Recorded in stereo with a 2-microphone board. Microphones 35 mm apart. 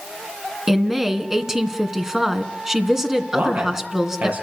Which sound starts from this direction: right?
A man speaking, at 3.3 s.